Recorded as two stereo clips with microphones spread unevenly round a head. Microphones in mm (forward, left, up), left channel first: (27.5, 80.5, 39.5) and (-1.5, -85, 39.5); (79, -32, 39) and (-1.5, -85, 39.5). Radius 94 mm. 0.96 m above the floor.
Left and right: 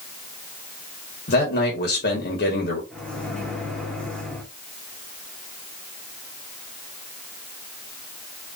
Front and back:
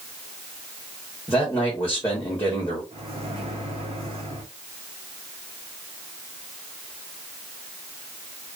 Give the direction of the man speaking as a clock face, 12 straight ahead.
8 o'clock.